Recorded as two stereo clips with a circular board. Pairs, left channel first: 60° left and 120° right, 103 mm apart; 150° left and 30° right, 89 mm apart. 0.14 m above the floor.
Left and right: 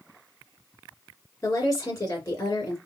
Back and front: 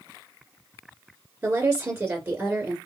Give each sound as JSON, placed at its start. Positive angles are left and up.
{"t": 1.4, "sound": "a woman speaking", "azimuth_deg": 20, "distance_m": 2.5}